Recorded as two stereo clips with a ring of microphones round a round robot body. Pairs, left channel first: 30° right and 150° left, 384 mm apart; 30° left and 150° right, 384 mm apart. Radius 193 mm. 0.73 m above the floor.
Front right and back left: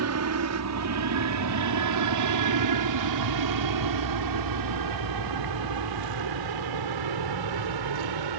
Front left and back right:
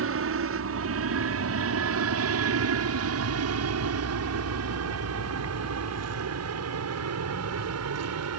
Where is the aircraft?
175° left; by 8.4 s 165° left.